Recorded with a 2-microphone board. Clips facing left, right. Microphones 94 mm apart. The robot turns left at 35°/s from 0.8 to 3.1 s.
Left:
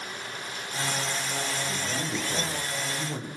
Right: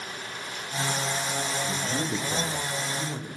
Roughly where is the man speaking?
Behind right.